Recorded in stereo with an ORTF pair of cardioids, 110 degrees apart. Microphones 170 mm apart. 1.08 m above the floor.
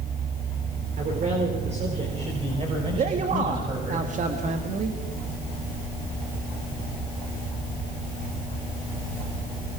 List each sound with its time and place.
1.0 s a man speaking: 50° right, 4.5 m; by 4.0 s 25° right, 7.5 m
3.0 s a man speaking: 45° right, 2.0 m